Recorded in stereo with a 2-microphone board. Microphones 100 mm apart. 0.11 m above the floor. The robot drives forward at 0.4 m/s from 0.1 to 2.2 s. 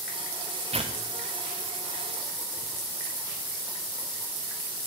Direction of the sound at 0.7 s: 80° right.